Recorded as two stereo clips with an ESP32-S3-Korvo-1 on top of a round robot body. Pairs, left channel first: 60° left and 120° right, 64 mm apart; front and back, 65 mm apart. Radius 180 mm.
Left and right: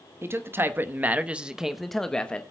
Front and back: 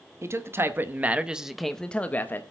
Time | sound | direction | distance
0.2 | a man speaking | 155° right | 1.3 m